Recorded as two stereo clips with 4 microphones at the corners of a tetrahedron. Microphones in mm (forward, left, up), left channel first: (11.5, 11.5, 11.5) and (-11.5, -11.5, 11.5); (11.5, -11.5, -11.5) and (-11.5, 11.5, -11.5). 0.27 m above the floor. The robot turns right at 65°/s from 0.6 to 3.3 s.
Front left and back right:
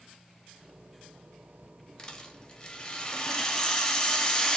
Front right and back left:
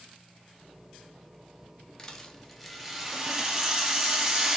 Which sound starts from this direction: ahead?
A rattle, at 2.0 s.